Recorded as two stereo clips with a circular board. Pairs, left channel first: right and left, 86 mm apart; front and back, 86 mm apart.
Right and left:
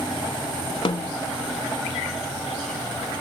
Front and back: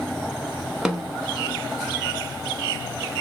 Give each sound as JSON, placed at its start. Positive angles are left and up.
{"t": 0.8, "sound": "a snare drum", "azimuth_deg": -95, "distance_m": 0.7}